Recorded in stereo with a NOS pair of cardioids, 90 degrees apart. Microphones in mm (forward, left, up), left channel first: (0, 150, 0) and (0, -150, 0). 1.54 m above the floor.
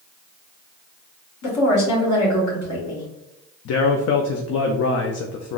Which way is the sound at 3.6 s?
60° left.